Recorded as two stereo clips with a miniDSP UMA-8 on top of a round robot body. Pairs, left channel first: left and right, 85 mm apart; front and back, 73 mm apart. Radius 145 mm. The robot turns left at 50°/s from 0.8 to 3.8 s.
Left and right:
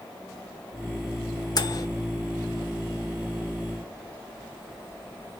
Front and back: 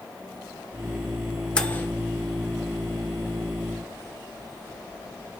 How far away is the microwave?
About 1.7 m.